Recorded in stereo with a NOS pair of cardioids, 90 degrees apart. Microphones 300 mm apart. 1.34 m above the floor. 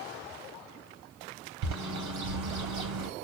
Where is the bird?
65° right, 3.5 m.